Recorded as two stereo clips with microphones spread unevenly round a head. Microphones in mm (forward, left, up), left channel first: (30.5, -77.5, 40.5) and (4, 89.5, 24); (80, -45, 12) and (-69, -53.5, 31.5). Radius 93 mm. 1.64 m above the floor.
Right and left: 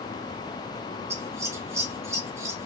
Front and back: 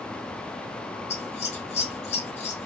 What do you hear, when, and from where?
1.1 s scissors: 25° left, 0.6 m